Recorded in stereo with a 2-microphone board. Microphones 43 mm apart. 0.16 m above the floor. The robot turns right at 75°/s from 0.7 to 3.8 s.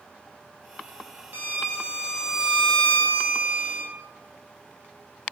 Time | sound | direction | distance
1.3 | a violin | 80° right | 0.7 m